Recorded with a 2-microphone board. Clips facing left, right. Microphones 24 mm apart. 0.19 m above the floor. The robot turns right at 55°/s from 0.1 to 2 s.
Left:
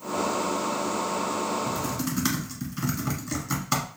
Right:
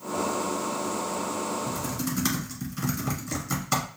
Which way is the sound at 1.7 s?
20° left (ahead or behind).